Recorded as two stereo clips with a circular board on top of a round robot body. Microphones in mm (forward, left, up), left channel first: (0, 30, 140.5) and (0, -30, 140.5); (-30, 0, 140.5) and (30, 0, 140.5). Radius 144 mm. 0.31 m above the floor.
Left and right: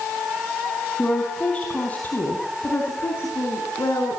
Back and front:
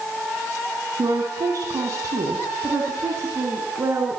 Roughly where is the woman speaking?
Ahead.